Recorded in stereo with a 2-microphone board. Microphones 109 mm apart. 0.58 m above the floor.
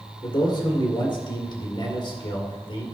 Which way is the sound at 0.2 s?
50° left (ahead or behind).